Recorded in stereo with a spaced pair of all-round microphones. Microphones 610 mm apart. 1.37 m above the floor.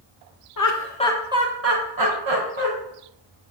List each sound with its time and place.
0.6 s laughter: 35° left (ahead or behind), 0.6 m; by 2.7 s 55° right (ahead or behind), 1.0 m